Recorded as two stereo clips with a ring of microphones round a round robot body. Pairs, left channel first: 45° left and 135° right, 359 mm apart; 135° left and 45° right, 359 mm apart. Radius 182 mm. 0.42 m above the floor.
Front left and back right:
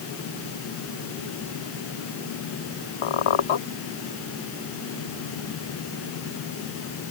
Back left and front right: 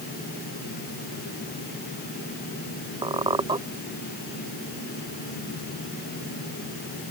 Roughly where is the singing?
No singing in this recording.